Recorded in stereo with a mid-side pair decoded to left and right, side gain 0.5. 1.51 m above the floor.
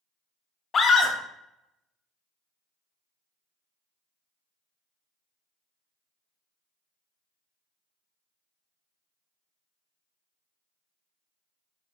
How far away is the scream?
About 0.7 m.